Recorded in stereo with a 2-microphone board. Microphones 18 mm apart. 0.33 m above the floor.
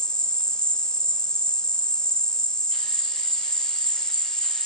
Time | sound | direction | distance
0.0 | an insect | 55° left (ahead or behind) | 0.8 m